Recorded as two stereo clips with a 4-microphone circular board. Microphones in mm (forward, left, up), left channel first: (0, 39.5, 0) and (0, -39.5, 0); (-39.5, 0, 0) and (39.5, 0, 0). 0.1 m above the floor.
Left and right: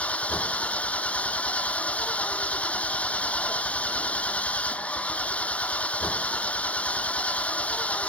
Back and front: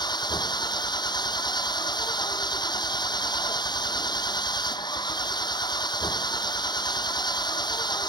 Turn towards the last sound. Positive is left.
turn(degrees=165)